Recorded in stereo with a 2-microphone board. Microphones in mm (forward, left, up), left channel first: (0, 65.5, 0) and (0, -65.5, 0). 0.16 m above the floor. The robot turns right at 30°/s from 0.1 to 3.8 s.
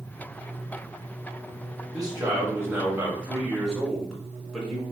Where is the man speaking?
50° right, 1.4 m; by 4.8 s 5° left, 1.4 m.